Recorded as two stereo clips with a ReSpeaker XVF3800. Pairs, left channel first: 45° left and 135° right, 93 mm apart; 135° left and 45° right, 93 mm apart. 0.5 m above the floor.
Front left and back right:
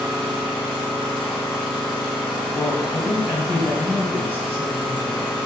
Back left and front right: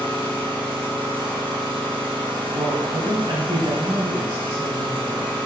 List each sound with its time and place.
0.0 s an engine running: 40° right, 2.5 m
2.5 s a woman speaking: 20° right, 2.5 m